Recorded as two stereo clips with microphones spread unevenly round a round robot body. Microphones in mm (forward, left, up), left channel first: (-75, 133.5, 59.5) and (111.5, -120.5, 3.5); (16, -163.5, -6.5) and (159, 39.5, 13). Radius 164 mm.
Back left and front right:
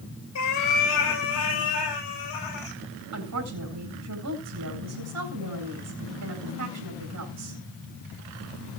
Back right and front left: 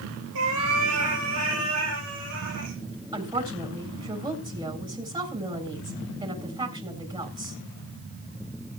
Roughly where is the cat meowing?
Left.